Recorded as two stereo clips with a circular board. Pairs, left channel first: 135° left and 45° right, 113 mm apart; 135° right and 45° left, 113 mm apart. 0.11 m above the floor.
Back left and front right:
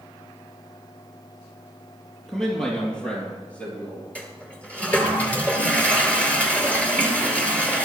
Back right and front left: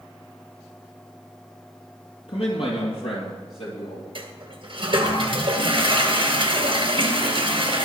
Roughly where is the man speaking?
Behind right.